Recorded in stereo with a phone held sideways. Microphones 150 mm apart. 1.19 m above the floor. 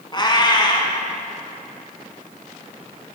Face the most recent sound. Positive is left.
turn(degrees=30)  # may be behind; listen again after turning